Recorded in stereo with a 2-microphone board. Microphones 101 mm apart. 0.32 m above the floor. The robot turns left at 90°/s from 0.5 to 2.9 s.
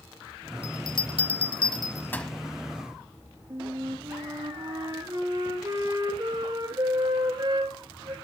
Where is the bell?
25° left (ahead or behind), 1.2 m; by 2.3 s centre (ahead or behind), 1.2 m.